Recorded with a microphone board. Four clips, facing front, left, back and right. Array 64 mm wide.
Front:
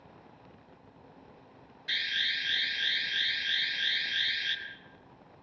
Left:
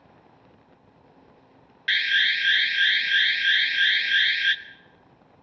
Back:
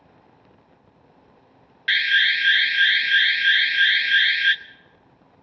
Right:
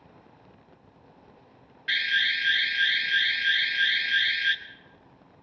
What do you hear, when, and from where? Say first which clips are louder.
1.9 s an alarm: left 3 dB, back 15 dB; 160° left, 0.7 m